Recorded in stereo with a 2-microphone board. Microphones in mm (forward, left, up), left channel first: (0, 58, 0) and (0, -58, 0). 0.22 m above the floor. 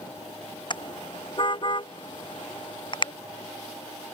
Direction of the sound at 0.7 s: 40° left (ahead or behind).